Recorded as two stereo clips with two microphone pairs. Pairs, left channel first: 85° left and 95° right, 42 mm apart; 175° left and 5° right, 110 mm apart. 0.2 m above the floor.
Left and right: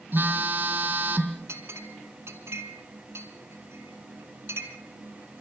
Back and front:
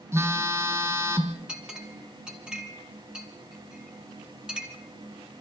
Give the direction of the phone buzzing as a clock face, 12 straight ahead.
2 o'clock.